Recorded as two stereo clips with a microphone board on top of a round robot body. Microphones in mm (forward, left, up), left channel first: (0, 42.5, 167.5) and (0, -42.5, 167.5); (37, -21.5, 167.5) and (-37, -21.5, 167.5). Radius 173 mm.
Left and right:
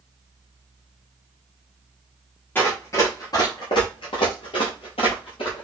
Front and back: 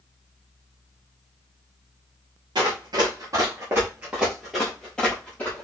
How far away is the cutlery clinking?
I don't hear cutlery clinking.